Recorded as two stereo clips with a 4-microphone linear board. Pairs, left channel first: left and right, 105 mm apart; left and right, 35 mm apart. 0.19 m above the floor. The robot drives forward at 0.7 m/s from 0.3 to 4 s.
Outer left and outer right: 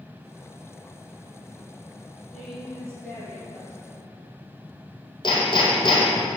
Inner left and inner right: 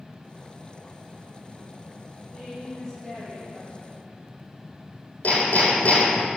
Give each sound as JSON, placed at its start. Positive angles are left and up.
{"t": 2.3, "sound": "a woman speaking", "side_deg": 10, "distance_m": 2.5}
{"t": 5.2, "sound": "hammering", "side_deg": 50, "distance_m": 3.0}